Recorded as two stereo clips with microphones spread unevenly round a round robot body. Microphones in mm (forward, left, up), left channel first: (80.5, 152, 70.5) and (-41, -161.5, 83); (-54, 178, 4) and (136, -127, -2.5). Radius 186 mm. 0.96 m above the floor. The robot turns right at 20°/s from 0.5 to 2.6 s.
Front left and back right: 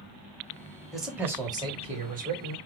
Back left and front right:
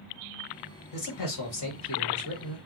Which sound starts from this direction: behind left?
A man speaking, at 0.9 s.